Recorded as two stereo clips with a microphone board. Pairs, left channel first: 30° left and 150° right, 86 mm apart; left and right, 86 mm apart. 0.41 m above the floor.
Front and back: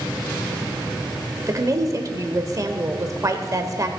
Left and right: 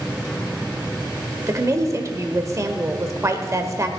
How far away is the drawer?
No drawer in this recording.